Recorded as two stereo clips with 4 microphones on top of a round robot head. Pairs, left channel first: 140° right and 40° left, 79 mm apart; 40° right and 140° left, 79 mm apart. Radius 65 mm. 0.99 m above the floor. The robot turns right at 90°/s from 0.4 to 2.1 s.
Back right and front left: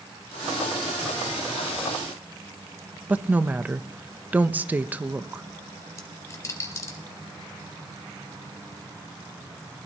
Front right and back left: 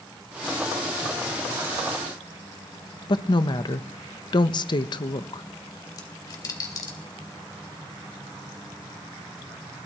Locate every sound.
3.1 s a woman speaking: 30° right, 0.9 m
6.0 s a dropped coin: 90° right, 1.7 m